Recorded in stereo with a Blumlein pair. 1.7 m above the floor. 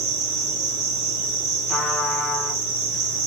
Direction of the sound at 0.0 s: 40° right.